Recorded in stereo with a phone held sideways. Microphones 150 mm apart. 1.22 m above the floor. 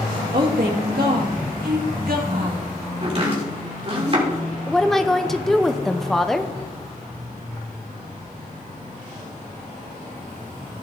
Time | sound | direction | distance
0.3 | a woman speaking | 80° right | 1.9 m
3.0 | chopping | 40° right (ahead or behind) | 3 m
4.7 | a woman speaking | 5° left (ahead or behind) | 0.7 m